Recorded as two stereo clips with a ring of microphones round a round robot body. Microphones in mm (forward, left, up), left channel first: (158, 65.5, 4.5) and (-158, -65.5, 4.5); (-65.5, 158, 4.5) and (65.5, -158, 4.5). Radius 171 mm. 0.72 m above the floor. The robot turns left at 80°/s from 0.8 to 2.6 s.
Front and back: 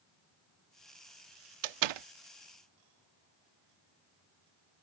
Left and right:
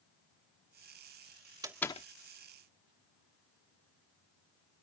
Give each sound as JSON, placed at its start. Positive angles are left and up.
{"t": 1.6, "sound": "a door slam", "azimuth_deg": -145}